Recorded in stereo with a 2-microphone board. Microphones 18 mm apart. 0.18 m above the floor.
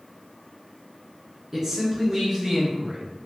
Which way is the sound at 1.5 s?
30° right (ahead or behind).